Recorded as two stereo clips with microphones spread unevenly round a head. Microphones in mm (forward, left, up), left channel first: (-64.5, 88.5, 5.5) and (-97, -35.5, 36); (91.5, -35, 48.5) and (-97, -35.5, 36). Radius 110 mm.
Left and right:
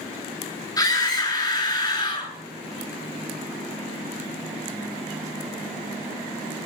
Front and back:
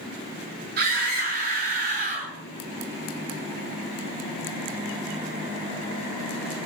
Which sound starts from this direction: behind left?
A scream, at 0.8 s.